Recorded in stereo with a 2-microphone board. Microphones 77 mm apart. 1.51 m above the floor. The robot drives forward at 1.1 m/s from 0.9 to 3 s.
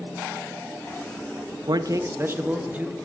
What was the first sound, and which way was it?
A man speaking, 65° right (ahead or behind).